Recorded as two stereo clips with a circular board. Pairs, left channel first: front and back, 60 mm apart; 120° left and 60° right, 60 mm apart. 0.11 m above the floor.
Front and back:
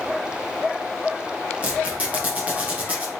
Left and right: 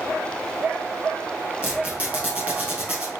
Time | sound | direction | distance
1.6 | a squeak | 125° right | 1.9 m